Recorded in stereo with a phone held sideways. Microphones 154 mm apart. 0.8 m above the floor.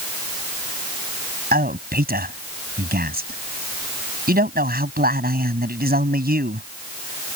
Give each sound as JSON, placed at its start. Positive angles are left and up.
{"t": 1.5, "sound": "a man speaking", "side_deg": -80}